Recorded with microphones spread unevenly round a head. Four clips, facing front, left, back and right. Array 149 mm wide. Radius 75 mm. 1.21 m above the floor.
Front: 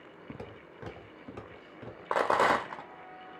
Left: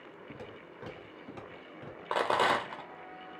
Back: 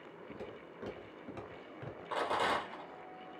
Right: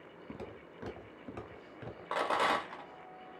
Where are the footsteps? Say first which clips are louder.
Right 2 dB, front 2 dB; 25° right, 1.3 m; by 2.0 s 135° right, 1.4 m.